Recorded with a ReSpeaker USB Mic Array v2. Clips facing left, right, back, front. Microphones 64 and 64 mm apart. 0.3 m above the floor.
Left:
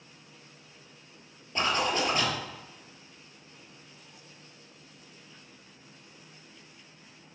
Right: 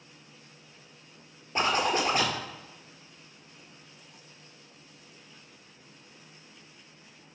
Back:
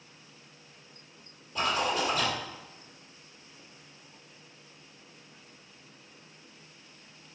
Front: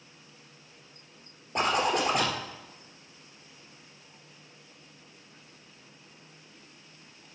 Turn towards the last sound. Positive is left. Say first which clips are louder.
# right 2 dB, front 3 dB
turn(degrees=-25)